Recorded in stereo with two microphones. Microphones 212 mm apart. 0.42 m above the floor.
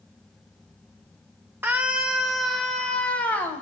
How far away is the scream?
About 1.6 m.